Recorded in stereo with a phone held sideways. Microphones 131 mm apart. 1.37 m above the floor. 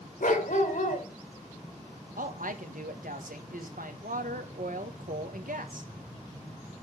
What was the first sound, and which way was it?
A dog barking, 75° left (ahead or behind).